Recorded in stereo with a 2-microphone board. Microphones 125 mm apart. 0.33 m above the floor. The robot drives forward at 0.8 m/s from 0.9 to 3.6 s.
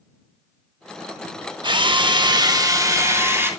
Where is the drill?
40° right (ahead or behind), 0.8 m; by 3.5 s 20° right (ahead or behind), 1.5 m.